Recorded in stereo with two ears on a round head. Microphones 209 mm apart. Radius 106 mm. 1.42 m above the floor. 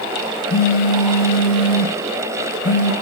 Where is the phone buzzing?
35° left (ahead or behind), 0.5 m.